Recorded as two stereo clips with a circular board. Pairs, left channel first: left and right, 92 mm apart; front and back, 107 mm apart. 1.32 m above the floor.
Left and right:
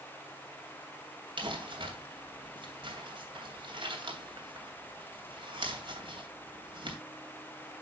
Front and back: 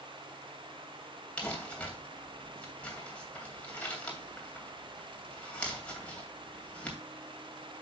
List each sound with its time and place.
1.4 s crumpling: 80° right, 2.5 m